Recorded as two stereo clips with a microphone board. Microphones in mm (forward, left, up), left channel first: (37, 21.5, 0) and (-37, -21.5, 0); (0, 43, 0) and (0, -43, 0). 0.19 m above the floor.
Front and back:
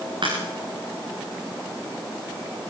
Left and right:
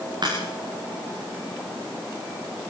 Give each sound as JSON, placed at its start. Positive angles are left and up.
{"t": 0.2, "sound": "a crack", "azimuth_deg": -125, "distance_m": 9.0}